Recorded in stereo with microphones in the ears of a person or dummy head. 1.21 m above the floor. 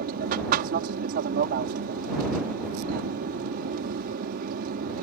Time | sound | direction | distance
0.0 | an aircraft | 50° right (ahead or behind) | ?